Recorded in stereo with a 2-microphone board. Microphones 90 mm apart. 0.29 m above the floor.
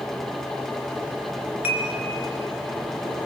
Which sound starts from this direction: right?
Dishes clattering, at 1.6 s.